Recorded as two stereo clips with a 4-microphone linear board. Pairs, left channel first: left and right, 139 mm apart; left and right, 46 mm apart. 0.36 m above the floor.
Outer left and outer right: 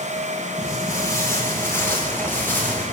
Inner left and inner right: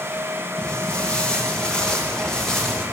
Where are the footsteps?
25° left (ahead or behind), 5.5 m; by 2.8 s 15° left (ahead or behind), 8 m.